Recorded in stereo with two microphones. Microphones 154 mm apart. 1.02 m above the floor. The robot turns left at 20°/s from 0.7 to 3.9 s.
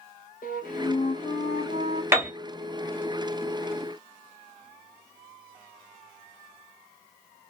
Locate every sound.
0.4 s a flute: 70° left (ahead or behind), 0.8 m; by 2.0 s 45° left (ahead or behind), 0.8 m
2.1 s a piano: 15° right (ahead or behind), 0.6 m